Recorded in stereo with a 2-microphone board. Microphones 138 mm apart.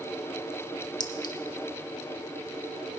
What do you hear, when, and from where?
1.0 s a clink: 30° left (ahead or behind), 0.7 m